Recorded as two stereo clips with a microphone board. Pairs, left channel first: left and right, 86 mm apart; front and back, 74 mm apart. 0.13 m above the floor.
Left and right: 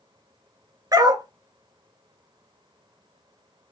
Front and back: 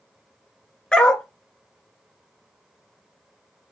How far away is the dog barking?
About 0.6 m.